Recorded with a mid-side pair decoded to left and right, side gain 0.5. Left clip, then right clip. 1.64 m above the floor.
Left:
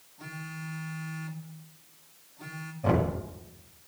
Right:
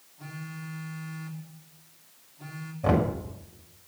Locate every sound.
0.2 s a phone buzzing: 20° left, 3 m
2.8 s knocking: 25° right, 7 m